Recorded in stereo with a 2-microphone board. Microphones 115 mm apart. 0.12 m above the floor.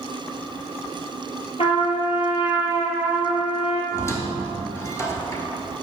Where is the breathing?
No breathing in this recording.